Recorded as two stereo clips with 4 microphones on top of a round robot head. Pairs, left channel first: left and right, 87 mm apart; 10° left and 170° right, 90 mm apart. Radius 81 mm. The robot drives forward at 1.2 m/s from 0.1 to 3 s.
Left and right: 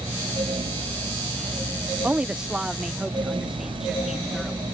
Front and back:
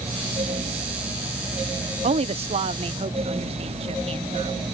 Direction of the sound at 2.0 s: 170° right.